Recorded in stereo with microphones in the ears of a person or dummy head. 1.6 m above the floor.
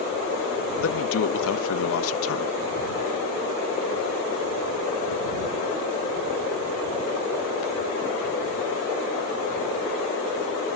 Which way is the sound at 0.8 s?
80° left.